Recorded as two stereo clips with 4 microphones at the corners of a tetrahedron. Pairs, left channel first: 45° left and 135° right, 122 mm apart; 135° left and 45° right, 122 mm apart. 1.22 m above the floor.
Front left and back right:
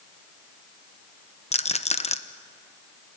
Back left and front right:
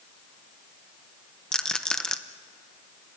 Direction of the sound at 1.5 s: 50° left.